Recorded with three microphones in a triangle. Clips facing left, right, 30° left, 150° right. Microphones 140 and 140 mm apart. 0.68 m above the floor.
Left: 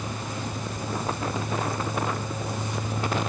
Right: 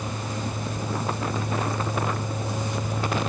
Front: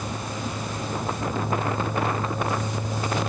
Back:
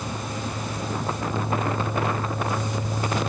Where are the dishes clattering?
No dishes clattering in this recording.